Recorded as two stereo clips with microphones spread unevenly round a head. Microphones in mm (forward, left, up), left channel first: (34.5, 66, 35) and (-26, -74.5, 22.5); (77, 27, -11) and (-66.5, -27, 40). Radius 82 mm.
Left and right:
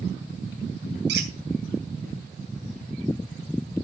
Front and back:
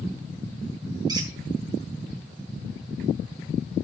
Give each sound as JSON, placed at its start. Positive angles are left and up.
{"t": 1.1, "sound": "a squeak", "azimuth_deg": -95, "distance_m": 2.5}